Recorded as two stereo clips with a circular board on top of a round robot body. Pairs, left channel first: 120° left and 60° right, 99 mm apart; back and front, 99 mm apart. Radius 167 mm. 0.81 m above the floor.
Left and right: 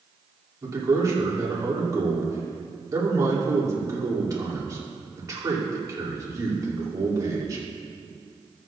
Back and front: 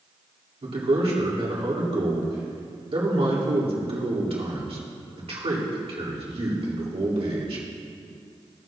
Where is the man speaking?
5° right, 3 m.